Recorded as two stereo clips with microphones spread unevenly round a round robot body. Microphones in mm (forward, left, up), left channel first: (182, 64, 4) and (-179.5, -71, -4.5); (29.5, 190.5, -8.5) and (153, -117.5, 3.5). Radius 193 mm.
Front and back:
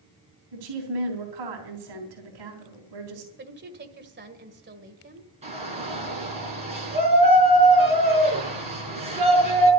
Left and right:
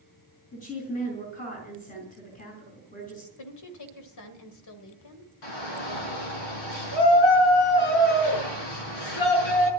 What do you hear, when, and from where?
0.5 s a woman speaking: straight behind, 3.5 m
3.4 s a woman speaking: 140° left, 1.8 m
5.4 s a shout: 125° left, 6 m